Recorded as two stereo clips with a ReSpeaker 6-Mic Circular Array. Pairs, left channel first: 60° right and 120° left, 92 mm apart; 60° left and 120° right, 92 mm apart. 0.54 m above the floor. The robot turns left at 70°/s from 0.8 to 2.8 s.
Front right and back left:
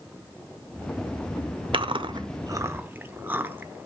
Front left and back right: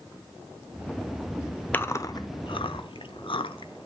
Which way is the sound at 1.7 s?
130° left.